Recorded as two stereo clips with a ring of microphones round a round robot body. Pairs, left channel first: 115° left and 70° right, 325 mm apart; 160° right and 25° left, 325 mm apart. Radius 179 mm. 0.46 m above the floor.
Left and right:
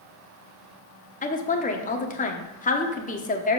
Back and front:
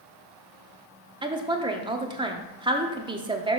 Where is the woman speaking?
80° left, 1.0 m.